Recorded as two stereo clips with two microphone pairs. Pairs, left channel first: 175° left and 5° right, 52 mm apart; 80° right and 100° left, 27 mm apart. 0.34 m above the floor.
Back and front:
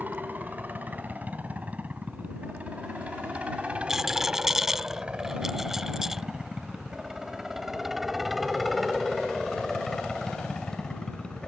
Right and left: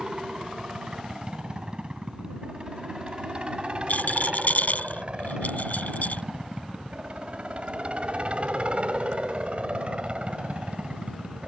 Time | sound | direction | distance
0.0 | a helicopter | 45° left | ?
3.9 | a rattle | 85° right | ?